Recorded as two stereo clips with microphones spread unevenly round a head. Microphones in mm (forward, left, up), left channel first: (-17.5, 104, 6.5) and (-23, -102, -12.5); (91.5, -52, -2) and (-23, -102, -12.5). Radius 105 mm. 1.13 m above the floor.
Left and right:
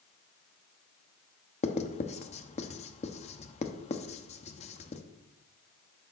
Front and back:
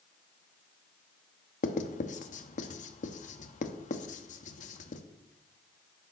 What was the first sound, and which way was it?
Writing, 30° left.